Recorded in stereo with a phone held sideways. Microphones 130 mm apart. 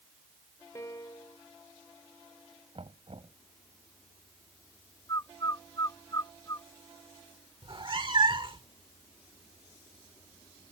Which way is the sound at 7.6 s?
45° right (ahead or behind).